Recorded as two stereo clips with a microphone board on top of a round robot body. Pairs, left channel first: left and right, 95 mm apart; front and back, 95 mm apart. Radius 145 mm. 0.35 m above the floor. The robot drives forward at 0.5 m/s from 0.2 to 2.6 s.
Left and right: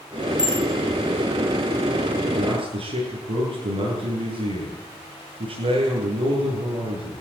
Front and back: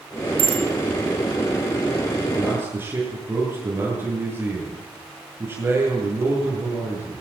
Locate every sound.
0.4 s a bicycle bell: 170° right, 5 m
2.3 s a man speaking: 110° right, 9 m